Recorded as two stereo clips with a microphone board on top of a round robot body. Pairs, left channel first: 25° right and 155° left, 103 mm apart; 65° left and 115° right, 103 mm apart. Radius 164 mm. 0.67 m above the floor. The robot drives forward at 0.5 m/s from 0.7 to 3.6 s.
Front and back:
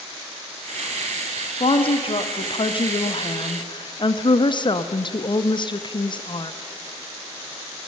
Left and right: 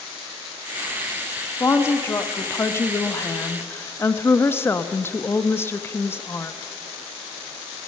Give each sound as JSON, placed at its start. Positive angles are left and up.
{"t": 1.6, "sound": "a woman speaking", "azimuth_deg": 0, "distance_m": 2.0}